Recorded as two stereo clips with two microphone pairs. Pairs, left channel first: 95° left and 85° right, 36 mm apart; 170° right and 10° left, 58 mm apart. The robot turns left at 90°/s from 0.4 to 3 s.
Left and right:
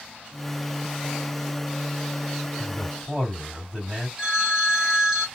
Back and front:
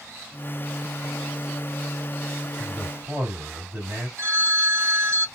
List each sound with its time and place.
2.6 s a man speaking: 45° left, 1.7 m; by 4.1 s 10° left, 1.7 m
4.2 s a phone ringing: 10° right, 1.4 m